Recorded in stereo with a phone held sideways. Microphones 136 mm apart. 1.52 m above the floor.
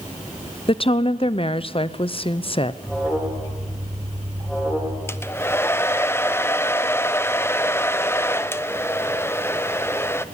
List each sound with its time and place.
0.7 s a woman speaking: 40° left (ahead or behind), 0.6 m
2.8 s an alarm: centre (ahead or behind), 4.5 m
5.1 s a hair dryer: 20° left (ahead or behind), 0.5 m